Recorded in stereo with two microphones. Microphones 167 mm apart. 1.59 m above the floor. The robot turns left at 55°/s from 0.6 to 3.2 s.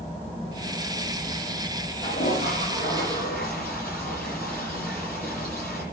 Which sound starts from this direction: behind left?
A toilet flushing, at 2.0 s.